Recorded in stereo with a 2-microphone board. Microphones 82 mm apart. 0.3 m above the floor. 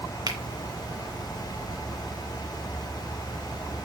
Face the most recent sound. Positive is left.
turn(degrees=-55)  # may be behind; listen again after turning